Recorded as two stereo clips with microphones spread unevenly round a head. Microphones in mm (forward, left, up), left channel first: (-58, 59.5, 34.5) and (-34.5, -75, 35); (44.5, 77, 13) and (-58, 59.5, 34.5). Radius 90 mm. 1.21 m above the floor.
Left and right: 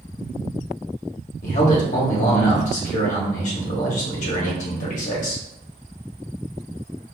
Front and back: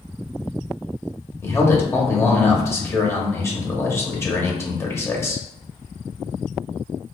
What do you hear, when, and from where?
1.4 s a man speaking: 65° left, 1.2 m